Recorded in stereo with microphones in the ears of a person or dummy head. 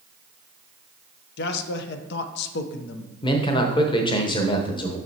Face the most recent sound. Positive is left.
turn(degrees=25)  # may be behind; listen again after turning